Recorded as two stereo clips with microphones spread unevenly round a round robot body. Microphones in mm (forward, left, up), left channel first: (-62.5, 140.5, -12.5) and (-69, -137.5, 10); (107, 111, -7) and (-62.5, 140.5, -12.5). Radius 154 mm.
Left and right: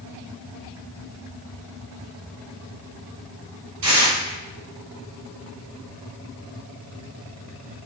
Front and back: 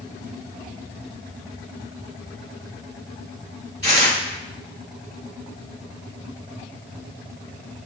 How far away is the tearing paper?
About 3.5 m.